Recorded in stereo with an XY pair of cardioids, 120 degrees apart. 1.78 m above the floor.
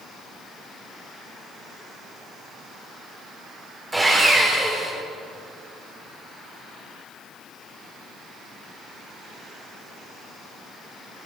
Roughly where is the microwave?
I don't hear a microwave.